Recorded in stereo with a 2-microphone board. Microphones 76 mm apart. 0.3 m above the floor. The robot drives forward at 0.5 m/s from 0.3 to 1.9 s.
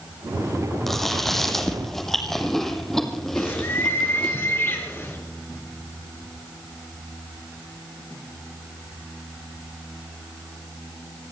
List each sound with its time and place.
0.9 s chewing: 5° left (ahead or behind), 3 m
3.4 s a bird: 35° left (ahead or behind), 3 m